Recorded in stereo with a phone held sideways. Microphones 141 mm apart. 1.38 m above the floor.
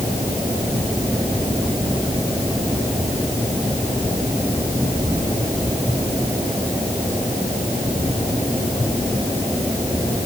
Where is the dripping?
I don't hear dripping.